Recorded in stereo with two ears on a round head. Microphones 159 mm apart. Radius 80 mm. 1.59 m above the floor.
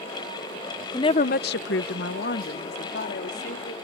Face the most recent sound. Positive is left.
turn(degrees=60)  # may be behind; listen again after turning